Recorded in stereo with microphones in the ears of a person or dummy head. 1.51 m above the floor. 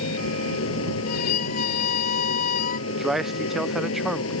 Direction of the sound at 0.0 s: 85° left.